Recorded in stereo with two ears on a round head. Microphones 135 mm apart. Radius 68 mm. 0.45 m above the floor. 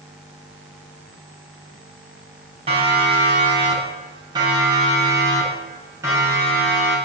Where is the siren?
35° right (ahead or behind), 6 m; by 7.0 s 15° right (ahead or behind), 8.5 m.